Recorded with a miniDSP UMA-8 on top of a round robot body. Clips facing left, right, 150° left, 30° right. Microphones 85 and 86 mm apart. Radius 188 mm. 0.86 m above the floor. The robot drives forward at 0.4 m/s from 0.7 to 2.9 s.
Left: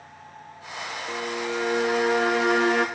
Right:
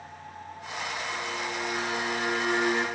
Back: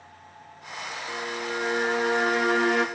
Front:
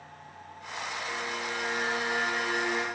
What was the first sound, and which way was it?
A violin, 75° left.